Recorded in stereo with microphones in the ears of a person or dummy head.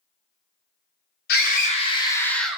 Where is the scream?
50° left (ahead or behind), 0.7 m; by 2.6 s centre (ahead or behind), 0.7 m.